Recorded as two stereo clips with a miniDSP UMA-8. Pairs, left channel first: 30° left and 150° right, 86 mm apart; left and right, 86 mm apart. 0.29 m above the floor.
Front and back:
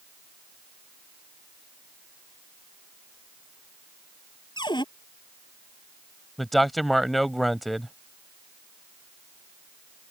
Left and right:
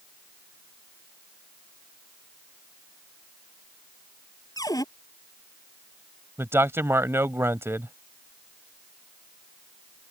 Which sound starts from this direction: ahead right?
A man speaking, at 6.4 s.